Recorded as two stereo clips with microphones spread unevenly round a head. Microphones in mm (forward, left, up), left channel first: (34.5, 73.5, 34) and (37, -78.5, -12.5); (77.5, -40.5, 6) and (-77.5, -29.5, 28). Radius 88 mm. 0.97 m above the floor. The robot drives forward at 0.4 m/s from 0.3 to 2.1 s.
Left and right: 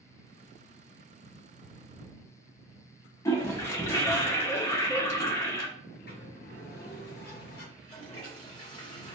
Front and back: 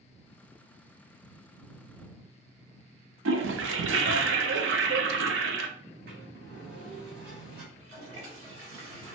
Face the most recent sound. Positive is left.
turn(degrees=150)